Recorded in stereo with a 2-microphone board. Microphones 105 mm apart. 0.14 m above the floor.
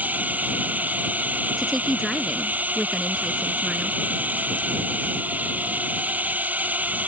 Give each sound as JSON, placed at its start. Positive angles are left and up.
{"t": 0.0, "sound": "a drone", "side_deg": -15}
{"t": 1.6, "sound": "a woman speaking", "side_deg": 0}